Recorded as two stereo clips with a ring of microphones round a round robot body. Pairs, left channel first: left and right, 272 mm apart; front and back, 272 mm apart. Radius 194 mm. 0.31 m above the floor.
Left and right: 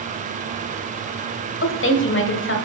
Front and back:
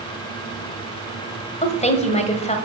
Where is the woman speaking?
60° left, 1.5 m.